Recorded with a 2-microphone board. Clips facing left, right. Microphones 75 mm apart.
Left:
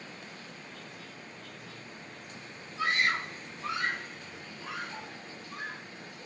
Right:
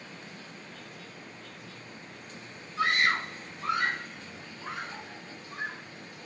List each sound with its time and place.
2.8 s a scream: 70° right (ahead or behind), 1.4 m; by 5.8 s 30° right (ahead or behind), 2.5 m